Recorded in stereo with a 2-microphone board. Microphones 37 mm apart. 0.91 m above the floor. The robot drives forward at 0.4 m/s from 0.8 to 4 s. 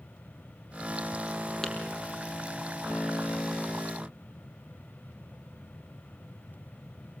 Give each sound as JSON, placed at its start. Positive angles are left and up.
{"t": 1.6, "sound": "tapping", "side_deg": 10, "distance_m": 5.5}